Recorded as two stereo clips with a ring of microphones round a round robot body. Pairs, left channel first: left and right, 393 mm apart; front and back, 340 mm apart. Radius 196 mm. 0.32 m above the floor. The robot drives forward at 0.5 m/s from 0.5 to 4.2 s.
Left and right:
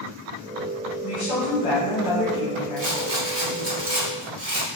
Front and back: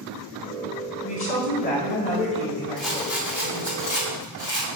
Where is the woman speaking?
30° left, 1.7 m; by 3.8 s 105° left, 1.2 m.